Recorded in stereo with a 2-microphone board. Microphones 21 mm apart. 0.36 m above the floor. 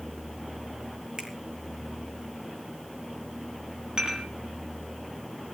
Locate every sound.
1.2 s a finger snap: 35° right (ahead or behind), 5.5 m
4.0 s dishes clattering: 40° right (ahead or behind), 6.5 m